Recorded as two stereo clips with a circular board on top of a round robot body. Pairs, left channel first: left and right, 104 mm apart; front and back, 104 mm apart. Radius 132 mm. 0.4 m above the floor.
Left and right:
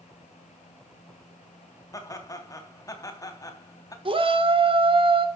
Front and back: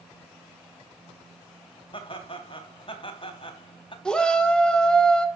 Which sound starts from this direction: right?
A shout, at 4.0 s.